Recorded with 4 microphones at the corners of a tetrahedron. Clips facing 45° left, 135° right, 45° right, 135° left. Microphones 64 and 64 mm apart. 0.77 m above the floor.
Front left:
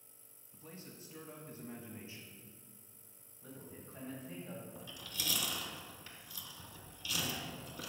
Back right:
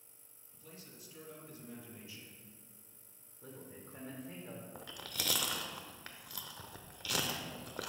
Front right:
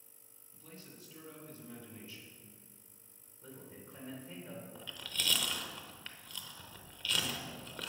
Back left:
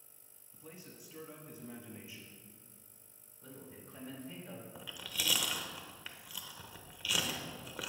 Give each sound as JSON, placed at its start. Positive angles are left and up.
{"t": 0.5, "sound": "a man speaking", "azimuth_deg": 75, "distance_m": 1.3}
{"t": 3.4, "sound": "a man speaking", "azimuth_deg": -120, "distance_m": 2.5}
{"t": 4.8, "sound": "chewing", "azimuth_deg": -145, "distance_m": 0.7}